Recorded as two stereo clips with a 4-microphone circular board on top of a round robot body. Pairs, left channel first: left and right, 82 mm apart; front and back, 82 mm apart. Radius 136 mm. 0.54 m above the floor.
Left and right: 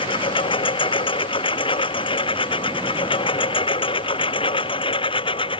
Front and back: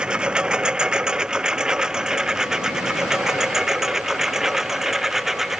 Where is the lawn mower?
100° left; by 5.6 s 95° left.